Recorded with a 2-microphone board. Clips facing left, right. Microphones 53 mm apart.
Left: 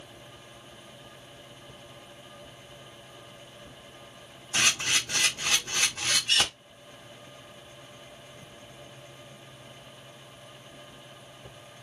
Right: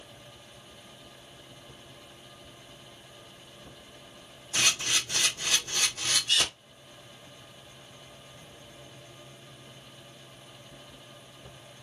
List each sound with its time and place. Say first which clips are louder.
4.5 s a camera shutter: left 2 dB; 70° left (ahead or behind), 1.3 m